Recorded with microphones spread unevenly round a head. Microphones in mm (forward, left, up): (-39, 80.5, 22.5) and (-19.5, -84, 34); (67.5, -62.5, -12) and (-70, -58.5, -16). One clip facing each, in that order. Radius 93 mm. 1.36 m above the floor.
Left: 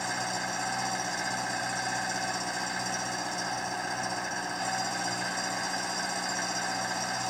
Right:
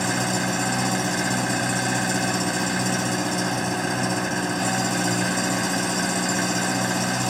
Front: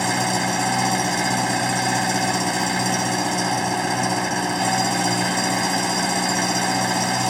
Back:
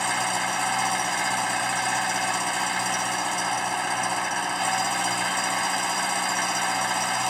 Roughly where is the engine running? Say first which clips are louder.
Right 10 dB, front 5 dB; ahead right.